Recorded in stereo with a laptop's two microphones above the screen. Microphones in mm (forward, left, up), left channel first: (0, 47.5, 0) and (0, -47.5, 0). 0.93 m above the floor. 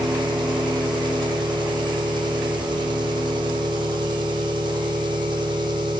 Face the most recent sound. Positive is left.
turn(degrees=-55)  # may be behind; listen again after turning